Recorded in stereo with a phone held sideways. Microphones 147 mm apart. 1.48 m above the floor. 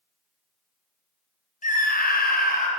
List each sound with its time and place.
1.6 s a scream: 60° left (ahead or behind), 0.9 m